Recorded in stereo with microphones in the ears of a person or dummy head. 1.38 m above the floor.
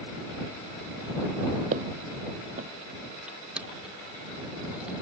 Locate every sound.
1.7 s footsteps: 40° right (ahead or behind)
3.3 s crushing: centre (ahead or behind)